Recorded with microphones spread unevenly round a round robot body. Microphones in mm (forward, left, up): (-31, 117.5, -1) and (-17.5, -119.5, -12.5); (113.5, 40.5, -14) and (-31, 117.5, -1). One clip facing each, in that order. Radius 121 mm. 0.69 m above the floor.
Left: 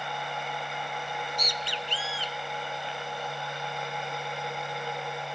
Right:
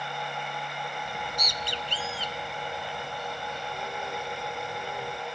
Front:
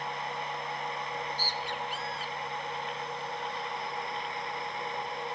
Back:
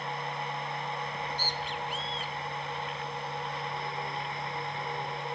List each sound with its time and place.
1.1 s a bird: 135° right